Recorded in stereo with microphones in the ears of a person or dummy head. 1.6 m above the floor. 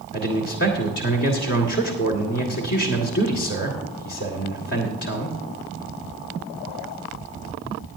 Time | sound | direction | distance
0.1 | a man speaking | 70° left (ahead or behind) | 1.8 m